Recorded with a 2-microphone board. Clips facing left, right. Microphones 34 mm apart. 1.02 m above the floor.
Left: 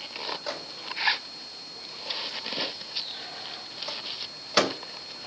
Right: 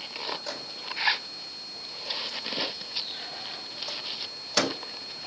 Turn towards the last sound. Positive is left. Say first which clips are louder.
# left 1 dB
turn(degrees=20)  # may be behind; listen again after turning